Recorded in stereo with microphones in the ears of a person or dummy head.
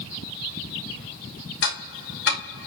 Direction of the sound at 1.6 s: 75° left (ahead or behind).